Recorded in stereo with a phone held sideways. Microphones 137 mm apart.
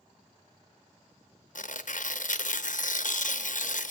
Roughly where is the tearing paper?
Left.